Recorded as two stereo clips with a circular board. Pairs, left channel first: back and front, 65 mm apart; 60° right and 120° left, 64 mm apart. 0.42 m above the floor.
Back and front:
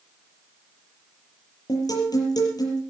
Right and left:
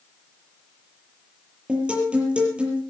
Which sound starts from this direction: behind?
A guitar, at 1.7 s.